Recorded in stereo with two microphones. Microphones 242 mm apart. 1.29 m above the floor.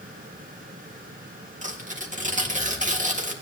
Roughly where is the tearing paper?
Right.